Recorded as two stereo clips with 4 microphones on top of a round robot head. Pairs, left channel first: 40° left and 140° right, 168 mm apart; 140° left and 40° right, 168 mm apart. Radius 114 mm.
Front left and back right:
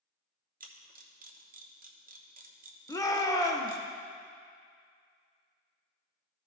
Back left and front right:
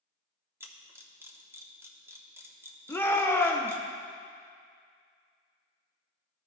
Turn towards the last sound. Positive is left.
turn(degrees=80)